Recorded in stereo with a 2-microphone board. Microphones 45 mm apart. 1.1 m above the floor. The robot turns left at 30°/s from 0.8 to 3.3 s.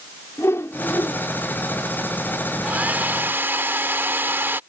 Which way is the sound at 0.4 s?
85° left.